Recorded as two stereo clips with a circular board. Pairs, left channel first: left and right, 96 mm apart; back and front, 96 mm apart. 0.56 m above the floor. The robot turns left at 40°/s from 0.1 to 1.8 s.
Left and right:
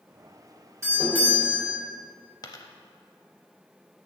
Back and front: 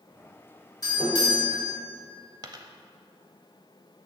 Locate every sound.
0.8 s a doorbell: 145° right, 3 m; by 1.8 s straight behind, 3 m
2.4 s a dropped coin: 40° left, 0.6 m